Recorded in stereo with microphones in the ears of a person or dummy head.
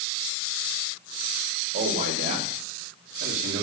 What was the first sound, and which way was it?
A man speaking, 45° right (ahead or behind).